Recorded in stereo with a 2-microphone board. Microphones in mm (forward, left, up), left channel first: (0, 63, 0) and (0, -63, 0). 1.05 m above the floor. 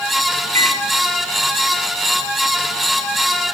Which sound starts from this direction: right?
A microwave, at 0.6 s.